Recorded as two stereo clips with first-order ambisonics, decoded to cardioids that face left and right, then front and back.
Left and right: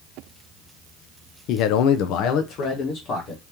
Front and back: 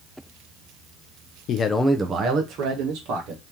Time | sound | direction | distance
1.5 | a man speaking | 50° left | 0.5 m